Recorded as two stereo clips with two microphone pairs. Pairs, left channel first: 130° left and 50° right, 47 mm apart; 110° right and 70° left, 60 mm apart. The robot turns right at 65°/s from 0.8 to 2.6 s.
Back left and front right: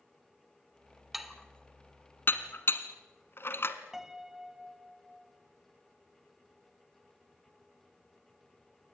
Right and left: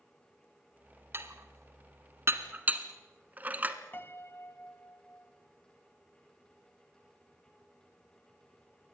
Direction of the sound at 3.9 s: 135° right.